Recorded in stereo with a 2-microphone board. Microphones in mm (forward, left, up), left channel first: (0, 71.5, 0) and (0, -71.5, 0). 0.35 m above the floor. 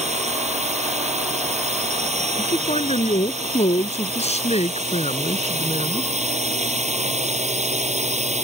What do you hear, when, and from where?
0.0 s a drone: 55° right (ahead or behind)
2.4 s a man speaking: 50° left (ahead or behind)